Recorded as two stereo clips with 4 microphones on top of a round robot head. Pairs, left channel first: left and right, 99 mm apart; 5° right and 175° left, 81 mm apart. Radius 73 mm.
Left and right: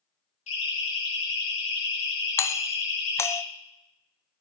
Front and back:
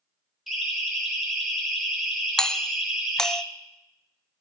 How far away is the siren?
About 8.5 m.